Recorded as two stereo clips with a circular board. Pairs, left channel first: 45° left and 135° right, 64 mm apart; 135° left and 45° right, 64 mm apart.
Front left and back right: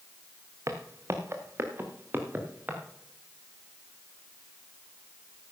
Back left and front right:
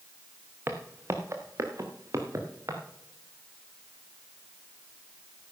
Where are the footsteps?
95° right, 1.8 m; by 2.8 s 75° right, 3 m.